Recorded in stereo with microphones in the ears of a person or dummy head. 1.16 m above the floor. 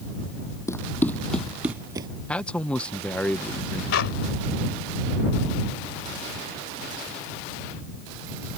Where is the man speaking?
5° left (ahead or behind).